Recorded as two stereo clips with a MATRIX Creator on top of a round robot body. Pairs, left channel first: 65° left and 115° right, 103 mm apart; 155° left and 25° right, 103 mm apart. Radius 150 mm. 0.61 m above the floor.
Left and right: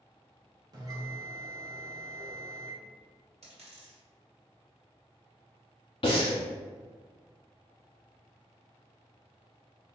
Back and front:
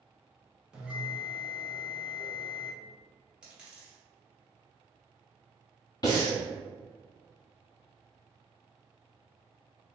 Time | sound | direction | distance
0.7 | a bell | 100° right | 1.4 m
3.4 | a dropped coin | 105° right | 1.3 m
6.0 | breathing | 105° left | 0.5 m